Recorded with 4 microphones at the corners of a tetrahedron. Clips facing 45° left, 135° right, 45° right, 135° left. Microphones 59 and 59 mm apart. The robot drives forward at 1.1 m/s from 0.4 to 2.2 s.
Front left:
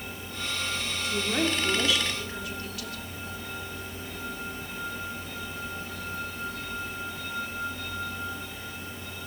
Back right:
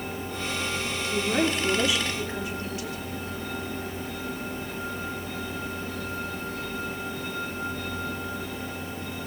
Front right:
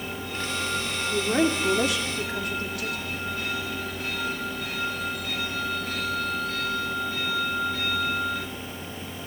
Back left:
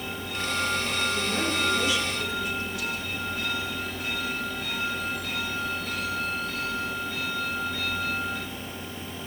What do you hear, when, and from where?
1.1 s a woman speaking: 50° right, 3 m; by 3.0 s 70° right, 2.5 m